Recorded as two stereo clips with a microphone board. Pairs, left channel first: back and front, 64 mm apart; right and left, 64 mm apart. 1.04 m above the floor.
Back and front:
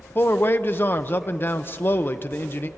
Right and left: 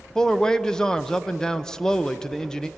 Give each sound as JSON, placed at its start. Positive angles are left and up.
{"t": 0.1, "sound": "a man speaking", "azimuth_deg": -160, "distance_m": 0.8}